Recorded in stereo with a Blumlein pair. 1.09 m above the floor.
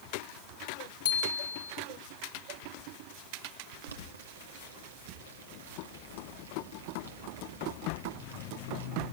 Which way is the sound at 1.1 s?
65° left.